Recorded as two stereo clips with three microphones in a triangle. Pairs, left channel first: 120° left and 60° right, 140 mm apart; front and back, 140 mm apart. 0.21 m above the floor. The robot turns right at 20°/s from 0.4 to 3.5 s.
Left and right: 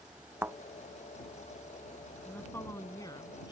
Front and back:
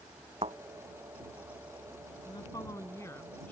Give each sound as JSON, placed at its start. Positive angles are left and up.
{"t": 0.4, "sound": "a thud", "azimuth_deg": -135}
{"t": 2.2, "sound": "a woman speaking", "azimuth_deg": 50}